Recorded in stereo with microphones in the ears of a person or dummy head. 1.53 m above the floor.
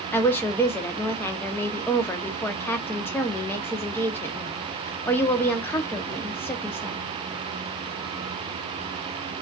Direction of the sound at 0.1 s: 15° left (ahead or behind).